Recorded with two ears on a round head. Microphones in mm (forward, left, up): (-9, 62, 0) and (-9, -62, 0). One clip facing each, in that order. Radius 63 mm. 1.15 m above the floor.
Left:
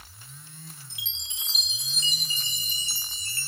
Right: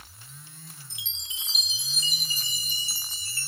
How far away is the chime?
About 0.6 m.